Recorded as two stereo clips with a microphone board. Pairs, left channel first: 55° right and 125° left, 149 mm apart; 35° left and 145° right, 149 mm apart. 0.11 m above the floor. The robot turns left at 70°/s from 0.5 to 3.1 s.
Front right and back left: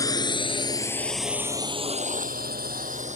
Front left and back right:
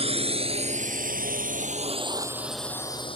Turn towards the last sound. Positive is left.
turn(degrees=90)